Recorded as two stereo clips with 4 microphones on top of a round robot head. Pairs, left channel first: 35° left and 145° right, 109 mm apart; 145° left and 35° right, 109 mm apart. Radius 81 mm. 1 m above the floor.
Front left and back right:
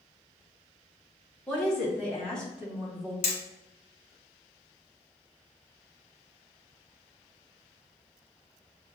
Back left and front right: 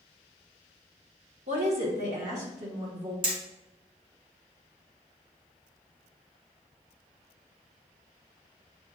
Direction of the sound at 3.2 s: 10° left.